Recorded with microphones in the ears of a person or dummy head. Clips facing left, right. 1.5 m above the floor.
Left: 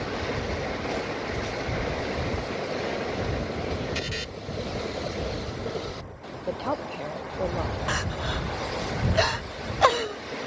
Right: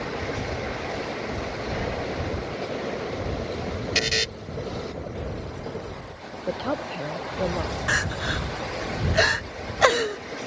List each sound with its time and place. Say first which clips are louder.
4.0 s a buzzer: right 5 dB; 75° right (ahead or behind)
6.5 s a woman speaking: right 2 dB; 15° right (ahead or behind)
7.9 s crying: right 1 dB; 25° right (ahead or behind)